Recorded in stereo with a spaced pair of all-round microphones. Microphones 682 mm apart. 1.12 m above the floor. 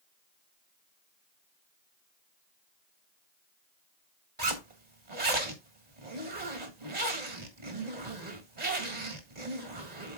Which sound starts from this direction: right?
A zipper, at 4.4 s.